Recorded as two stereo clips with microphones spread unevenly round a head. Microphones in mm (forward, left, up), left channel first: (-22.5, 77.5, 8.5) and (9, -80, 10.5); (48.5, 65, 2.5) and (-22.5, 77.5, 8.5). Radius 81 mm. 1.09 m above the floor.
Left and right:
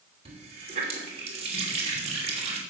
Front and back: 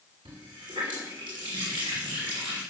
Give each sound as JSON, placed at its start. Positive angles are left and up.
{"t": 0.2, "sound": "a running tap", "azimuth_deg": -130, "distance_m": 2.5}